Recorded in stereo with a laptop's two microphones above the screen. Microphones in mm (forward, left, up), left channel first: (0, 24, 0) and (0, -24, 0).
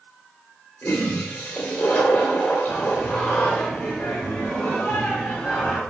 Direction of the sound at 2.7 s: 40° left (ahead or behind).